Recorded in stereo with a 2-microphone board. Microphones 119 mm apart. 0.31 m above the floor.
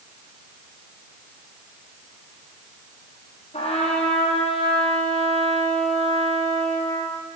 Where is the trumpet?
65° left (ahead or behind), 5 m.